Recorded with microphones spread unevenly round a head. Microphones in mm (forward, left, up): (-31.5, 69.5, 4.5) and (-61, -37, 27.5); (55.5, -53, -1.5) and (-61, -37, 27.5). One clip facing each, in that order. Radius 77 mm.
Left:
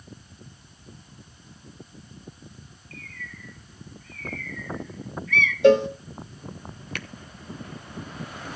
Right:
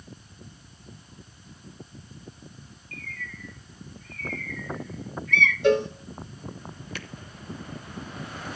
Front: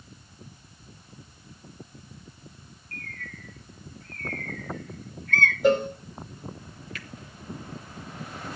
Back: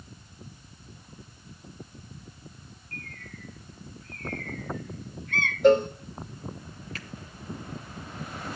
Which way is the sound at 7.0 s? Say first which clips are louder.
Left 3 dB, even; 110° left.